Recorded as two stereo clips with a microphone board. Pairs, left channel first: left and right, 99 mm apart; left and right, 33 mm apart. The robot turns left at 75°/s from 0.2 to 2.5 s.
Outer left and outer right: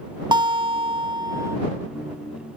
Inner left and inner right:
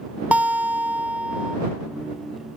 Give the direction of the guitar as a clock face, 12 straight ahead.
2 o'clock.